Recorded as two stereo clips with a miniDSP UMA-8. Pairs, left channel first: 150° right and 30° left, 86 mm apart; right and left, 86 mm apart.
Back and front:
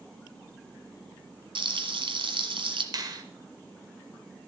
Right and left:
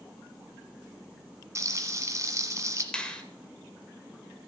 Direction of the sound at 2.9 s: 10° right.